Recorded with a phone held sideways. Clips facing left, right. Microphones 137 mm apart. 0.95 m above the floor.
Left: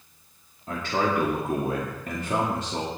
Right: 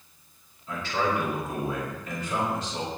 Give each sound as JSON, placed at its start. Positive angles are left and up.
{"t": 0.7, "sound": "a man speaking", "side_deg": 60, "distance_m": 2.0}